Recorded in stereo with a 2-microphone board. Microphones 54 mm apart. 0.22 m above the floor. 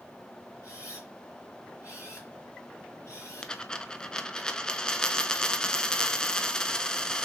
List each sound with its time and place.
0.6 s a camera shutter: 65° left (ahead or behind), 3 m
3.4 s a dropped coin: 15° left (ahead or behind), 0.5 m